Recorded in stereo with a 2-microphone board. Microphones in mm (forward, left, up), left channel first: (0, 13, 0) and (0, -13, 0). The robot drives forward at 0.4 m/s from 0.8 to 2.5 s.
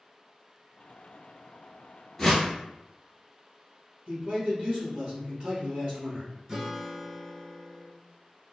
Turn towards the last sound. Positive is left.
turn(degrees=-15)  # may be behind; listen again after turning